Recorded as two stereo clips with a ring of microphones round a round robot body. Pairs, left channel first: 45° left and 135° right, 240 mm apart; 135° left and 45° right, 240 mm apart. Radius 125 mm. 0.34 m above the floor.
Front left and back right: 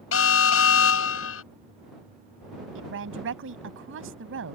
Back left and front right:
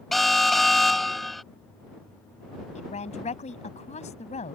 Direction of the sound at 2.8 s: 165° right.